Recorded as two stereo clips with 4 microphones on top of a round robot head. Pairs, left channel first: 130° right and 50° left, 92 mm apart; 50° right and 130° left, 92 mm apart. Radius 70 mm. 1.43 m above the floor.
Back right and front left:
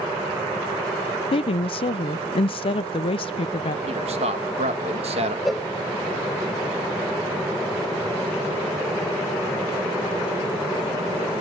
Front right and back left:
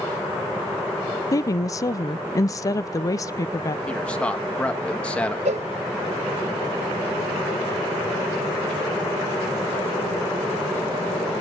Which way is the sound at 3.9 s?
30° left.